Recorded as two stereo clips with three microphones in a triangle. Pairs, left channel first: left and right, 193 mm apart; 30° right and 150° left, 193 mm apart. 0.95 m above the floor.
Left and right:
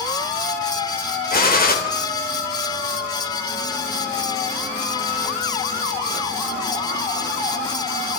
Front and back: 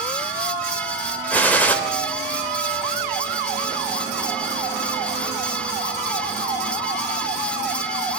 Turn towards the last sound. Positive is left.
turn(degrees=50)